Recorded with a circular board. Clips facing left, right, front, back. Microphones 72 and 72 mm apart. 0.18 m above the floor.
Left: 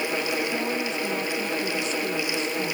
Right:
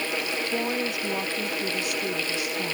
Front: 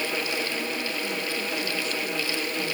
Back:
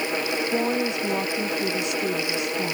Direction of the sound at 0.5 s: 165° right.